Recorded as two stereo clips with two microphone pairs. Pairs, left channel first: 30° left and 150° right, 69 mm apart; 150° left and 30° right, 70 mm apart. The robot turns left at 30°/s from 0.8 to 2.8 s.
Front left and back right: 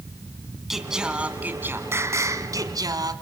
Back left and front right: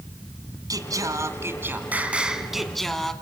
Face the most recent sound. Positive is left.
turn(degrees=-125)